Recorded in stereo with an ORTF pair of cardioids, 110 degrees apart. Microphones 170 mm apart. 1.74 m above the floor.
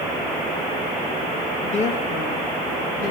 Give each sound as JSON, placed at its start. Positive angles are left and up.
{"t": 1.6, "sound": "a woman speaking", "azimuth_deg": 45, "distance_m": 2.5}